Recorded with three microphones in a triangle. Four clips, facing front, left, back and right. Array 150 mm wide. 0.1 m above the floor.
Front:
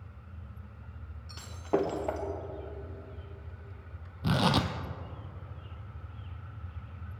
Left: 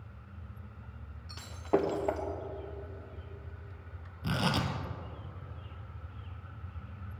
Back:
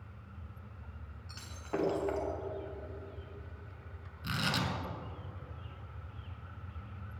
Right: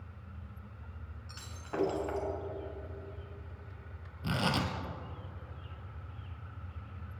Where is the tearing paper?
5° left, 1.5 m.